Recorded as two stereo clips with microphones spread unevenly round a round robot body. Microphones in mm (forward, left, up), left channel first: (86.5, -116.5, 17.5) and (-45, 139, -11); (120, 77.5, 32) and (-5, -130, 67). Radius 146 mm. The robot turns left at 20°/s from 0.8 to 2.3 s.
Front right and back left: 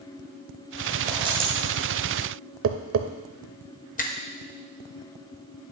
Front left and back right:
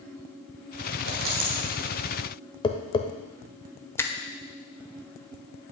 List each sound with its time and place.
1.1 s a dropped coin: 165° right, 1.7 m; by 1.6 s 175° right, 1.7 m
2.6 s tapping: 115° left, 0.7 m
4.0 s a finger snap: 5° right, 0.9 m